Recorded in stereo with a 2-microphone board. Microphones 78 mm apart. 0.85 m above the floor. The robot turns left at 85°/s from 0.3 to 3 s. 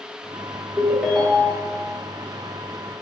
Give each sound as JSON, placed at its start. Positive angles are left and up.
{"t": 0.8, "sound": "a ringtone", "azimuth_deg": -155, "distance_m": 0.9}